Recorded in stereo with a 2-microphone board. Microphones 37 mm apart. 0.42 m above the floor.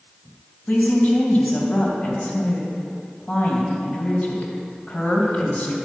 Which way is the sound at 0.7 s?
45° left (ahead or behind).